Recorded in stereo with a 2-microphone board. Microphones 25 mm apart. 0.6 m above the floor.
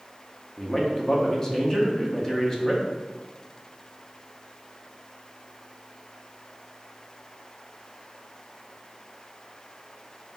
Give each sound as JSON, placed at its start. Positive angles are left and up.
{"t": 0.6, "sound": "a man speaking", "side_deg": 25, "distance_m": 0.7}